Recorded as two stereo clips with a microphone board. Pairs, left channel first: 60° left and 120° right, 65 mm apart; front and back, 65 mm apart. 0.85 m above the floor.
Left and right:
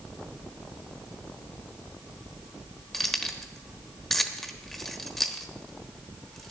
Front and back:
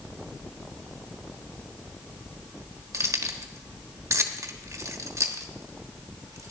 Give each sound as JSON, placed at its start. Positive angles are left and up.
{"t": 2.9, "sound": "keys jangling", "azimuth_deg": 145, "distance_m": 1.1}